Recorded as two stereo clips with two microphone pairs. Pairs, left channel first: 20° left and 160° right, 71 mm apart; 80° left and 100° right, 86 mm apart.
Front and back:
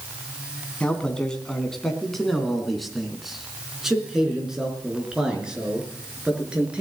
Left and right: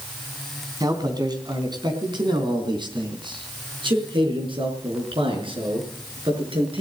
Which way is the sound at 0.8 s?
60° right.